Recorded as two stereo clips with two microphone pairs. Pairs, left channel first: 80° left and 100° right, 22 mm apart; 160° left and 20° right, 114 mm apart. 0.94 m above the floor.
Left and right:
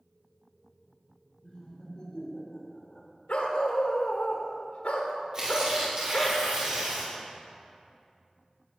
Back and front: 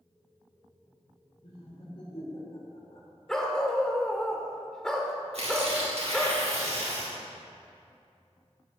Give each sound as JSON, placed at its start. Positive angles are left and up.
{"t": 1.4, "sound": "laughter", "azimuth_deg": 125, "distance_m": 3.5}
{"t": 3.3, "sound": "a dog barking", "azimuth_deg": 75, "distance_m": 1.1}
{"t": 5.3, "sound": "tearing paper", "azimuth_deg": -45, "distance_m": 3.5}